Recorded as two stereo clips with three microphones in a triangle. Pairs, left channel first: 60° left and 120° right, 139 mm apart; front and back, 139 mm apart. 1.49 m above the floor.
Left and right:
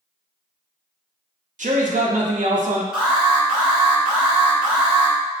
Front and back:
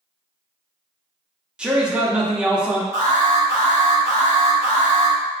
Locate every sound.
1.6 s a man speaking: 95° right, 0.5 m
2.9 s an alarm: 35° right, 1.5 m